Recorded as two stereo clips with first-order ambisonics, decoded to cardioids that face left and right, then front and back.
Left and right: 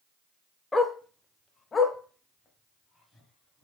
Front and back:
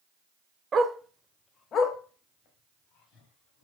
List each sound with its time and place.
0.7 s a dog barking: 150° left, 0.5 m; by 3.6 s 15° left, 1.4 m